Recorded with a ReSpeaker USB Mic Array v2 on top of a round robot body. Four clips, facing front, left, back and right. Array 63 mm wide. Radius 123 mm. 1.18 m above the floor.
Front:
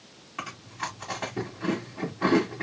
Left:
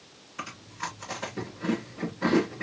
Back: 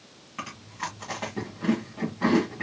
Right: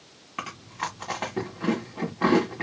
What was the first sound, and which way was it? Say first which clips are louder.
Chewing: right 4 dB, even; 95° right.